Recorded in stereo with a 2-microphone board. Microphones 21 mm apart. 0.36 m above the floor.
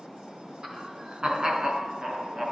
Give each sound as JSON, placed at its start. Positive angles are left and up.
{"t": 0.6, "sound": "laughter", "side_deg": -45, "distance_m": 3.0}